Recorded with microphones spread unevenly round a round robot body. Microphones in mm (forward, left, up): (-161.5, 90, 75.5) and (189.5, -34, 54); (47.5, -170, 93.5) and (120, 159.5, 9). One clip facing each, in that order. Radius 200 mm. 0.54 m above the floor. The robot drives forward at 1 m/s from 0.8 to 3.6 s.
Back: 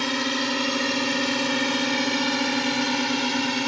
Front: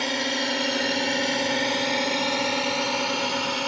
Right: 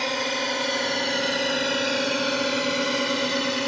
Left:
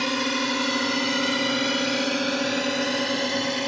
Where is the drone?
100° left; by 3.7 s 170° left.